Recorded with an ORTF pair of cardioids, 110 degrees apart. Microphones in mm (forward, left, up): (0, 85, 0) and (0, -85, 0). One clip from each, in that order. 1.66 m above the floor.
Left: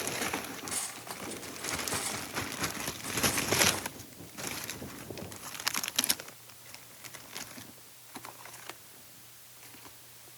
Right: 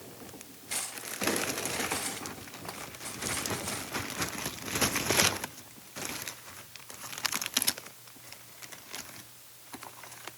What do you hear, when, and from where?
0.7 s cutlery clinking: 5° right, 5.5 m